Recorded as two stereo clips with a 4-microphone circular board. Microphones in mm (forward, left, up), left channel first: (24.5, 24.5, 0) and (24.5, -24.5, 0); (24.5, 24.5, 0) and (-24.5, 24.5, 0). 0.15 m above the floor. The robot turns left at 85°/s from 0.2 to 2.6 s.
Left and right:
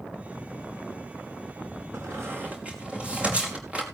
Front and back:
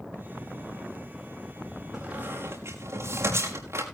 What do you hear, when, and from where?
1.9 s a squeak: 100° right, 4.5 m; by 3.8 s 155° right, 4.5 m